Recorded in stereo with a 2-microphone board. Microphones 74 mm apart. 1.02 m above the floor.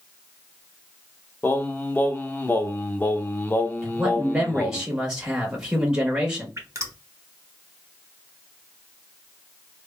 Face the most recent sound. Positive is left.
turn(degrees=-45)  # may be behind; listen again after turning